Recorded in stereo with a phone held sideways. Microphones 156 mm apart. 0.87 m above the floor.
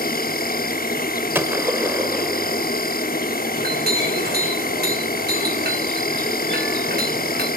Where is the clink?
80° right, 3 m.